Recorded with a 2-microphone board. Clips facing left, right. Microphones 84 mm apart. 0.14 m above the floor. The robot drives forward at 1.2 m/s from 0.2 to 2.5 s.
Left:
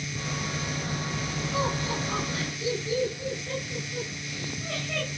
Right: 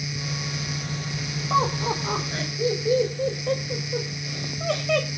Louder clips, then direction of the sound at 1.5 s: Right 7 dB; 80° right.